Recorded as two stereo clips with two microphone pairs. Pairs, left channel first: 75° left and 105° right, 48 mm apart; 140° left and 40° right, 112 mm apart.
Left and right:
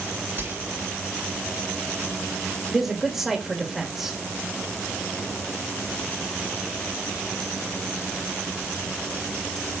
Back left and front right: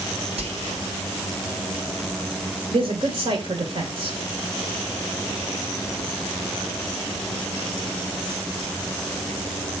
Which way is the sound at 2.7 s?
25° right.